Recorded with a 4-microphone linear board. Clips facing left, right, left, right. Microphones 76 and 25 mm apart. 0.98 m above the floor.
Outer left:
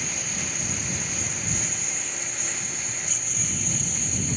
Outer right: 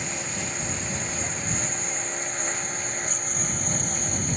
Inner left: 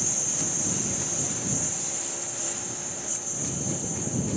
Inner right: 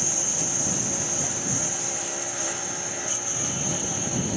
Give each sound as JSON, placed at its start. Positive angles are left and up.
{"t": 0.0, "sound": "a lawn mower", "side_deg": -25}